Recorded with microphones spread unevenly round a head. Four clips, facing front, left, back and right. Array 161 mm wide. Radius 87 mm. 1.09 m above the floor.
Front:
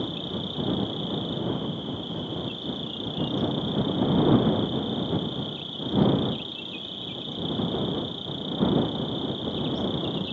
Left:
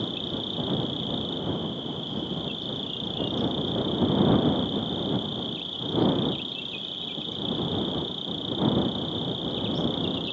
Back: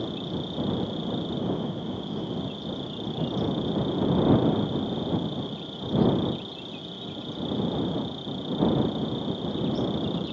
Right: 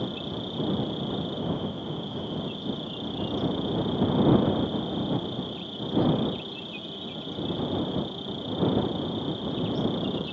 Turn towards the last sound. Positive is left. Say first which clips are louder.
# even, even
turn(degrees=145)